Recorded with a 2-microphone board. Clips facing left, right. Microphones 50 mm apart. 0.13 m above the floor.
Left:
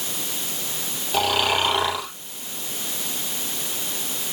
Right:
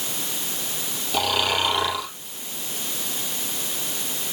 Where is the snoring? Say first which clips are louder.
Left 2 dB; 20° left (ahead or behind), 4.5 m.